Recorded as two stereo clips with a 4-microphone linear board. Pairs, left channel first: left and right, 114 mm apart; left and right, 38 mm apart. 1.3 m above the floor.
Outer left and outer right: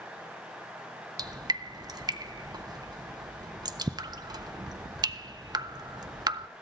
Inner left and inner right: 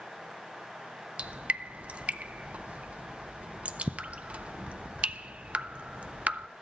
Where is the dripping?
40° right (ahead or behind), 0.6 m.